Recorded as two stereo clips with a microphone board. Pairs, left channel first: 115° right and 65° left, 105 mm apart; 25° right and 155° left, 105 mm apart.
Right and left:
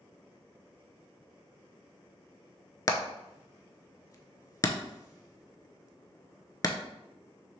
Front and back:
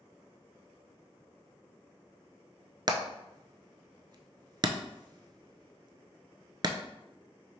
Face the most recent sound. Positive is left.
turn(degrees=-165)